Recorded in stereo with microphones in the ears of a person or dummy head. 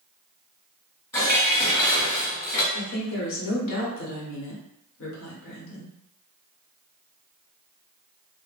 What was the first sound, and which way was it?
Dishes clattering, 15° left (ahead or behind).